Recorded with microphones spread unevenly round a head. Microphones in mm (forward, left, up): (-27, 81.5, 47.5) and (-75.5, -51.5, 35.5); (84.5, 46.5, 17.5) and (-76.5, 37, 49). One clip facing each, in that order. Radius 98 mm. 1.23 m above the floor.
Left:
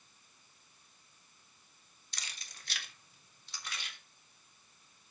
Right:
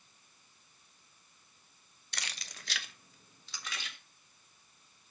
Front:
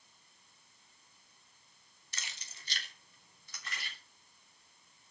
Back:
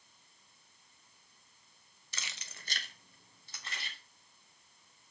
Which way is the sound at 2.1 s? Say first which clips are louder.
Right 5 dB, back 2 dB; 145° right.